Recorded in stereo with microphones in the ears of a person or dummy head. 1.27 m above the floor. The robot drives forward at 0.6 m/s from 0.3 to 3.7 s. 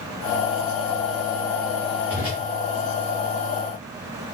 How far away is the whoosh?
About 3.5 m.